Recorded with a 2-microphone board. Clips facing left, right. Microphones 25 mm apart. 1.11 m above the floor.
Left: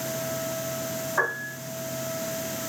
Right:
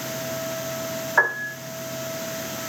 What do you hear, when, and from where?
1.2 s a piano: 50° right (ahead or behind), 1.8 m